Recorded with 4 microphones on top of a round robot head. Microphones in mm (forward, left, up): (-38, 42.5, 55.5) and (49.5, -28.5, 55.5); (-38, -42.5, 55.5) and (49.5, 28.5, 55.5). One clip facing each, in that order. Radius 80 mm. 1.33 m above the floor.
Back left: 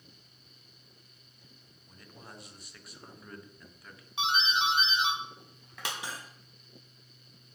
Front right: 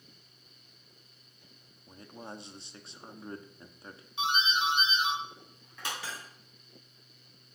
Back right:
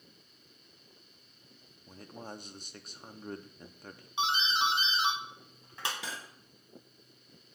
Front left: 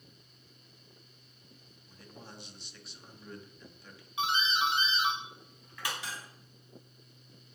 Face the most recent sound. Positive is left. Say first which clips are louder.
# back left 1 dB, back right 1 dB
turn(degrees=-145)